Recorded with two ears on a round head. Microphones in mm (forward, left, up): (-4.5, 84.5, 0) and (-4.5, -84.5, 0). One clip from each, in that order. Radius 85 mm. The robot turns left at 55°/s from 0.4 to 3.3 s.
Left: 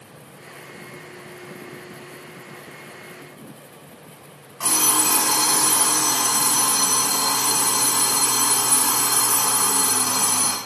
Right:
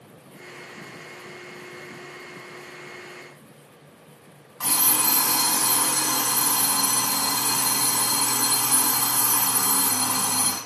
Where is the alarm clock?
15° right (ahead or behind), 1.5 m.